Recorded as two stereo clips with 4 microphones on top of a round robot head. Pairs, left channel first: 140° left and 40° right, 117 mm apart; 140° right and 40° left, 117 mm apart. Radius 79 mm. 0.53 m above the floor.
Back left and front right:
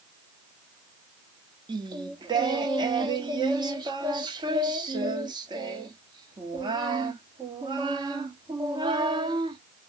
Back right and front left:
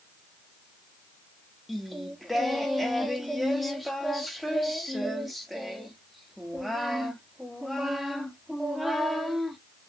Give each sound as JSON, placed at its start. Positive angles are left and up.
{"t": 1.7, "sound": "singing", "azimuth_deg": -50, "distance_m": 1.1}